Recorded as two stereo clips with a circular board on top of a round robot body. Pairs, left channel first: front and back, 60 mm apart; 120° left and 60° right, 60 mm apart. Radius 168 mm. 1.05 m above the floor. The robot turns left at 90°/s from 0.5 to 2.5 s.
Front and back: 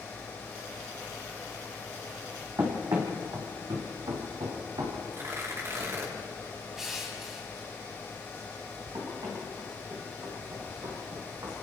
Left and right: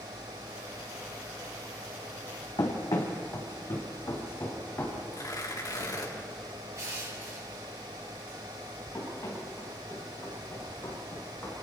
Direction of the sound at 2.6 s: 135° left.